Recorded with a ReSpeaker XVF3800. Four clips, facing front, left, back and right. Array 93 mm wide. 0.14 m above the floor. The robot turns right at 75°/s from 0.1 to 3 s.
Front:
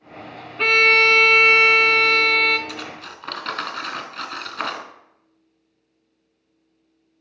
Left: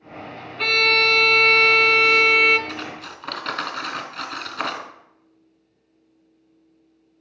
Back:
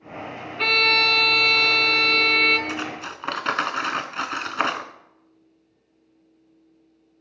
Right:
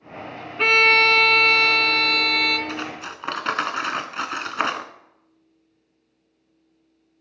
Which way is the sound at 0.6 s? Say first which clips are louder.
Right 3 dB, front 5 dB; 60° right.